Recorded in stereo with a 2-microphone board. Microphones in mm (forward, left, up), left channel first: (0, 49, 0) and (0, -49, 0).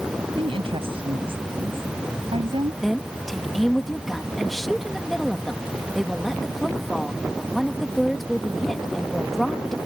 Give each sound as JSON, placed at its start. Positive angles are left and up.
{"t": 0.4, "sound": "a woman speaking", "side_deg": -75}
{"t": 2.8, "sound": "a woman speaking", "side_deg": 0}